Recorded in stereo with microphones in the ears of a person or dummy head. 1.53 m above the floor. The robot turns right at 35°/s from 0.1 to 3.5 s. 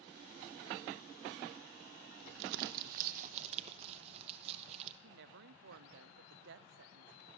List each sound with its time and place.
2.3 s crumpling: 65° right (ahead or behind), 0.9 m; by 4.9 s 40° right (ahead or behind), 0.9 m
5.0 s a woman speaking: 70° right (ahead or behind), 0.8 m